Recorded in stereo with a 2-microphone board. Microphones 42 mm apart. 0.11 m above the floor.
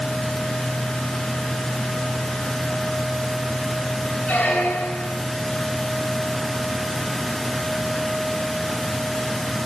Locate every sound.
4.3 s a squeak: 35° left (ahead or behind), 6.5 m